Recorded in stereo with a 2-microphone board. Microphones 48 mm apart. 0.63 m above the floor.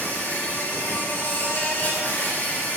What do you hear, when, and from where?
0.0 s an insect: 35° left (ahead or behind), 3 m